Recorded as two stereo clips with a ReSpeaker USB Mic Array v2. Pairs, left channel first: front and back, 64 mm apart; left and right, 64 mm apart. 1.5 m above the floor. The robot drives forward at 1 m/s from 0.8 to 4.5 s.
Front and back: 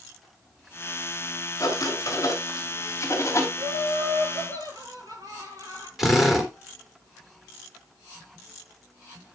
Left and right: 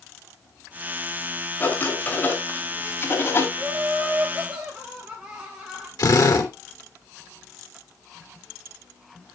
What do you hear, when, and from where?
1.6 s writing: 30° left, 4.5 m; by 3.5 s 45° left, 3 m
3.6 s laughter: 170° right, 7.5 m
6.0 s a drill: 95° left, 2.5 m